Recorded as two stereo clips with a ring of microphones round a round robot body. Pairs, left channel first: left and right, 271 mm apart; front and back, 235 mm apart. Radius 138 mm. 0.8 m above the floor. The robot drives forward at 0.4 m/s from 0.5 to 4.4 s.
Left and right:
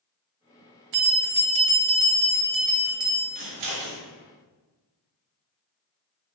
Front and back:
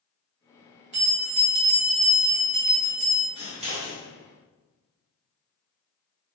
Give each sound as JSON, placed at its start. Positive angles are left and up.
{"t": 0.9, "sound": "a bell", "azimuth_deg": -110, "distance_m": 0.7}
{"t": 3.4, "sound": "scissors", "azimuth_deg": -105, "distance_m": 1.2}